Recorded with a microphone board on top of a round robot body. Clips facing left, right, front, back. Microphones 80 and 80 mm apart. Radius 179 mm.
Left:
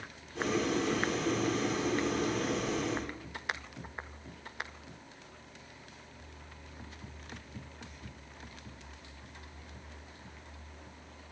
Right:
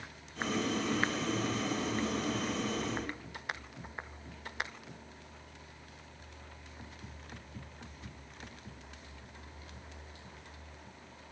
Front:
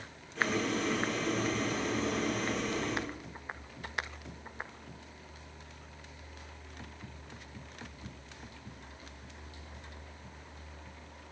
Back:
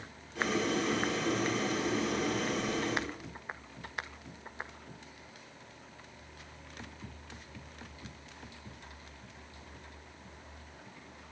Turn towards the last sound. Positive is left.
turn(degrees=105)